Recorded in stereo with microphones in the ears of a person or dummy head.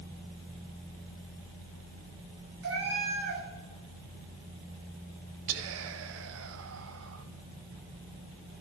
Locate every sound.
2.6 s a cat meowing: 80° right, 6.5 m
5.5 s whispering: 80° right, 1.2 m